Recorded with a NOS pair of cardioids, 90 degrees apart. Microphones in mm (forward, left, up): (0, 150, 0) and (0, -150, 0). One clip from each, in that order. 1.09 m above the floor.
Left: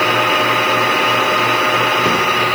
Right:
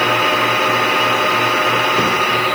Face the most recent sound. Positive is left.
No sound to turn to.